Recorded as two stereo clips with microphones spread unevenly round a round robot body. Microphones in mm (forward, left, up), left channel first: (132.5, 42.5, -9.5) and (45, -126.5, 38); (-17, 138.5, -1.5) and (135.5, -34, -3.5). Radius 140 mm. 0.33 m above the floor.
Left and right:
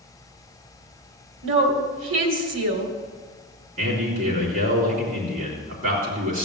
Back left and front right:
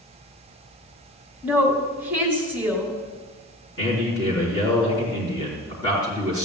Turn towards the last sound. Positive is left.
turn(degrees=-155)